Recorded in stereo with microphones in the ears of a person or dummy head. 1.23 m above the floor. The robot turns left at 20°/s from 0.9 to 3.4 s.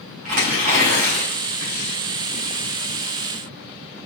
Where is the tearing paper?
50° right (ahead or behind), 1.7 m; by 1.7 s 35° right (ahead or behind), 1.7 m.